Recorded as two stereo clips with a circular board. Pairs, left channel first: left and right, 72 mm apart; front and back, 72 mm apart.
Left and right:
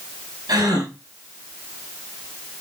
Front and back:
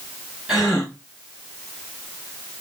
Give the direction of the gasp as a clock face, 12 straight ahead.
3 o'clock.